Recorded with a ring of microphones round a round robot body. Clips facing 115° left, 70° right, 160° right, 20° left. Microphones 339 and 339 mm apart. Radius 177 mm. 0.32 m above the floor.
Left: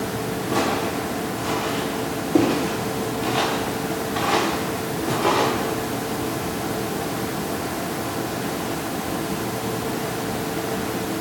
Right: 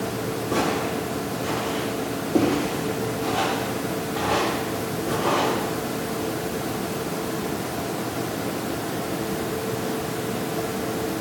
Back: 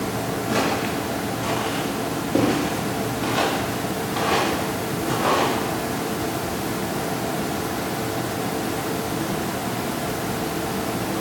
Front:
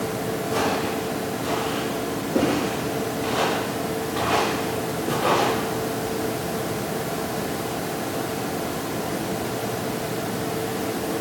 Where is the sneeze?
No sneeze in this recording.